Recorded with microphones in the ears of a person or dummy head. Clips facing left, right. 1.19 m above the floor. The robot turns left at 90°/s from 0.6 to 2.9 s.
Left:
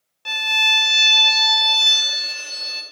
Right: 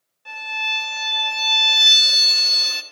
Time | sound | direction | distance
0.2 | a violin | 90° left | 0.7 m